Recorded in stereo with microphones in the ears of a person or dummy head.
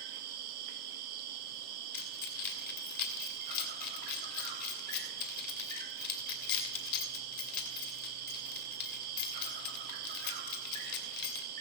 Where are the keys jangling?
55° left (ahead or behind), 2.5 m.